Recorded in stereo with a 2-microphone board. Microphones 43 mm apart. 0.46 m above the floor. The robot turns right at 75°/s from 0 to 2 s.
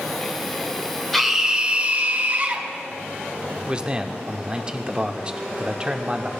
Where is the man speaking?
25° right (ahead or behind), 0.8 m.